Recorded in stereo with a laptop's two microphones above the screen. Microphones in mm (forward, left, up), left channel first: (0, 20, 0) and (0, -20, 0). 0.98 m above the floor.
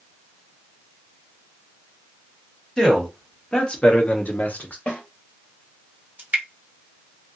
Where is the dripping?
45° right (ahead or behind), 0.9 m.